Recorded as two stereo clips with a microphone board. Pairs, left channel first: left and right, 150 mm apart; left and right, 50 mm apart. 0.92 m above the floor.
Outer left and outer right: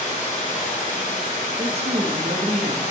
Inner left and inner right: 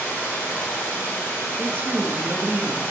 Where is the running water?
55° left (ahead or behind), 3.5 m.